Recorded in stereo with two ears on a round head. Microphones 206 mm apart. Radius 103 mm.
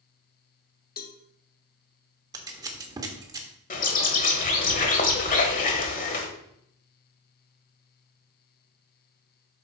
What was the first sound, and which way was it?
A cowbell, 40° left (ahead or behind).